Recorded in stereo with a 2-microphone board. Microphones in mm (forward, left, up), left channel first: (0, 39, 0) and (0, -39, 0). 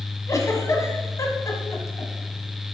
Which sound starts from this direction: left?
A giggle, at 0.3 s.